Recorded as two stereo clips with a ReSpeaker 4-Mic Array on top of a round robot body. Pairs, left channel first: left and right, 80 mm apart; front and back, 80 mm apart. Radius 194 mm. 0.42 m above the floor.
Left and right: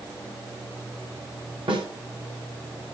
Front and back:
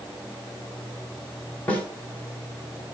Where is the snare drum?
75° right, 3.5 m.